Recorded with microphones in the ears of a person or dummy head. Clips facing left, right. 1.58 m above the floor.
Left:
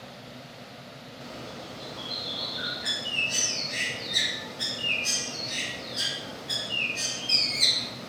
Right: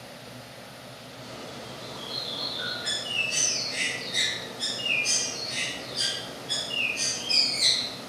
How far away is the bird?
About 2.5 m.